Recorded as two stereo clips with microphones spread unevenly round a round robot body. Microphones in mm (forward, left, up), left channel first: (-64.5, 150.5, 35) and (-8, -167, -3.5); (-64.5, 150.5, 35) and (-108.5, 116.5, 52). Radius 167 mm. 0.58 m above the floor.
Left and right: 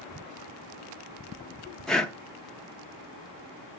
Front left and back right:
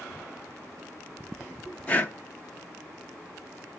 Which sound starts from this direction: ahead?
Breathing, at 1.9 s.